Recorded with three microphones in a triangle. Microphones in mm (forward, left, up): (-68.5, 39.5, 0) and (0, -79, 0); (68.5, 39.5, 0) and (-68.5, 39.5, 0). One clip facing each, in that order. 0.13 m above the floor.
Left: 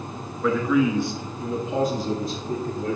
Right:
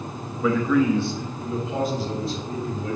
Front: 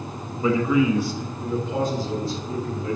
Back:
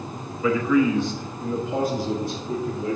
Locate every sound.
0.4 s a man speaking: 25° left, 1.3 m; by 3.0 s 120° left, 2 m